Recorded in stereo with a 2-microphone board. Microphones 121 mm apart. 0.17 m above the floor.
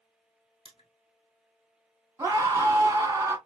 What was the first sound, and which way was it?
Crushing, 45° left (ahead or behind).